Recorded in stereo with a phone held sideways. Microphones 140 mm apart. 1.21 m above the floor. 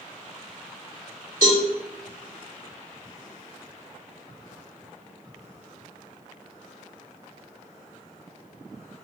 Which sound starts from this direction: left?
A cowbell, at 1.4 s.